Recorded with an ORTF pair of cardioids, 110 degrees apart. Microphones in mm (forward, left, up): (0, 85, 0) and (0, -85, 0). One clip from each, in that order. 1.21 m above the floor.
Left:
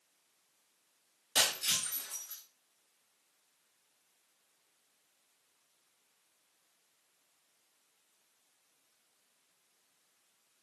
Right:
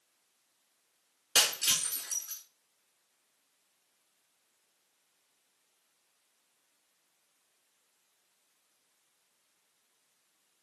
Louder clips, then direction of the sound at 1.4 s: Right 3 dB; 65° right.